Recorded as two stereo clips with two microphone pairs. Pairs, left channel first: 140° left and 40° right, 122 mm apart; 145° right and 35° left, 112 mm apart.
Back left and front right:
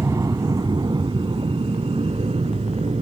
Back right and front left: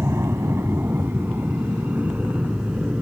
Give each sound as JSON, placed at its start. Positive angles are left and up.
{"t": 0.0, "sound": "an aircraft", "azimuth_deg": -5}